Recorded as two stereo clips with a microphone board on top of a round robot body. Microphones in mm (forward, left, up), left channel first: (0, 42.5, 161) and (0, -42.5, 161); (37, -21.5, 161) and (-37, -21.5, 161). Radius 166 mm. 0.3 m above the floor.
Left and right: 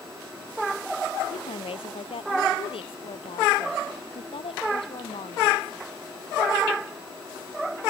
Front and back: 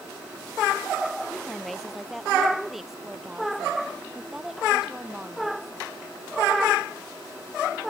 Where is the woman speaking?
90° left; by 5.8 s 100° left.